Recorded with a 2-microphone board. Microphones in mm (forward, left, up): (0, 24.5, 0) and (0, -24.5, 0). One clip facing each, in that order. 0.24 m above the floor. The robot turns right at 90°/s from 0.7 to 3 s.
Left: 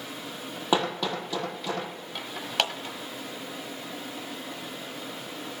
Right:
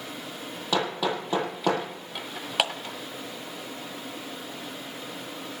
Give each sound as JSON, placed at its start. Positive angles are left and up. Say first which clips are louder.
{"t": 0.7, "sound": "hammering", "louder": "even", "side_deg": 25, "distance_m": 4.0}
{"t": 2.6, "sound": "a clap", "louder": "right 1 dB", "side_deg": -10, "distance_m": 1.2}